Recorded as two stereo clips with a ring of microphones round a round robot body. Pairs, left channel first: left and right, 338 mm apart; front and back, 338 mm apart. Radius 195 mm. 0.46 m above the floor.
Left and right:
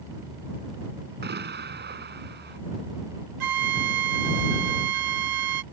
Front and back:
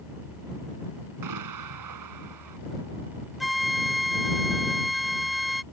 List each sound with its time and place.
1.2 s an explosion: 150° right
3.4 s a flute: 90° right